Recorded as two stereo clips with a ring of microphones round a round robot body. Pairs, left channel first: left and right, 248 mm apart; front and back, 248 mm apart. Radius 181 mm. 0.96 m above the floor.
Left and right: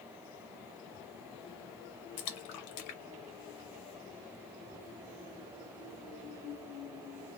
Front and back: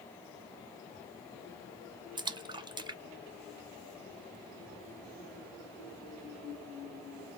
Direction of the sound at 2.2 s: 105° left.